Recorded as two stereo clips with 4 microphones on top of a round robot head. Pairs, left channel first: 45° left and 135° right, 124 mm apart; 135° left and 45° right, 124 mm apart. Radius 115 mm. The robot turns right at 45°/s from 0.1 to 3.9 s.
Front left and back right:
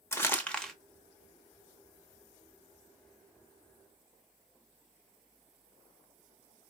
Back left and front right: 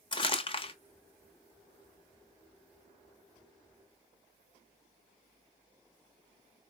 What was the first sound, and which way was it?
Crumpling, 105° left.